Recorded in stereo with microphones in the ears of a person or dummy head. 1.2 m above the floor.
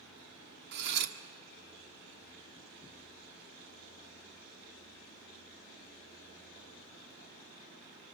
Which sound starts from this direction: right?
Cutlery clinking, at 0.7 s.